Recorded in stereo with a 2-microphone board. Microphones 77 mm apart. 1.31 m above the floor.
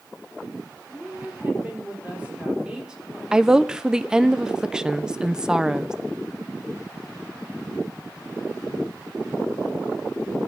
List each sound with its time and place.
0.9 s a woman speaking: 30° right (ahead or behind), 5 m; by 4.3 s 5° left (ahead or behind), 4 m
3.3 s a woman speaking: 10° right (ahead or behind), 0.6 m